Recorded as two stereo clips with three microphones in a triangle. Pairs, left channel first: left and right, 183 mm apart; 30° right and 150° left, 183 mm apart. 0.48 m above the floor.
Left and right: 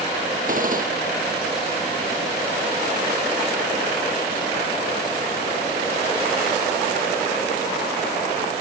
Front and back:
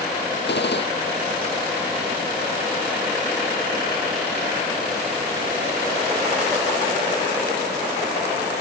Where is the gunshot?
50° right.